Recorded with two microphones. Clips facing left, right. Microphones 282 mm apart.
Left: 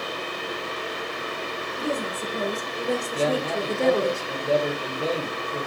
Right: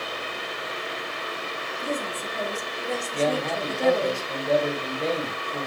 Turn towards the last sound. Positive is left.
turn(degrees=10)  # may be behind; listen again after turning